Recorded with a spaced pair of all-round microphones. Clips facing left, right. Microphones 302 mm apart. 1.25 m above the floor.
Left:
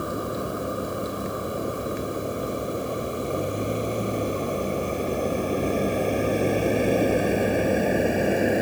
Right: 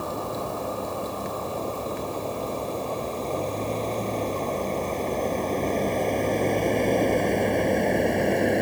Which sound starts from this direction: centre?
A vehicle, at 0.0 s.